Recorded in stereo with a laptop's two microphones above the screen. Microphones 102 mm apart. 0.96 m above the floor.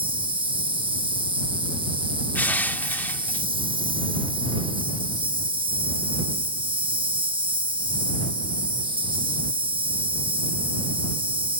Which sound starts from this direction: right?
An insect, at 0.0 s.